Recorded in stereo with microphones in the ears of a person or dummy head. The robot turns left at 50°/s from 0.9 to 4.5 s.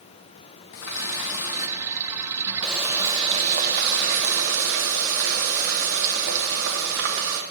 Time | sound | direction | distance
0.7 | a running tap | 90° left | 1.1 m